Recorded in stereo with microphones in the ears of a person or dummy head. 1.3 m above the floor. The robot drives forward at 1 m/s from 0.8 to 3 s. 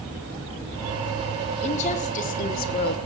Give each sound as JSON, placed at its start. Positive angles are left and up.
{"t": 1.6, "sound": "a woman speaking", "side_deg": 40, "distance_m": 3.5}